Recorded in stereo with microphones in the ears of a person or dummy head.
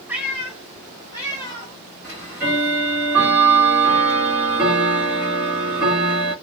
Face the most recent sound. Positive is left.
turn(degrees=-10)  # may be behind; listen again after turning